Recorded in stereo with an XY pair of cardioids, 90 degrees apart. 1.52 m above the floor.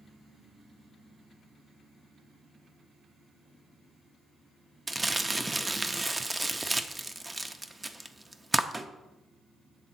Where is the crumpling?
20° right, 0.6 m.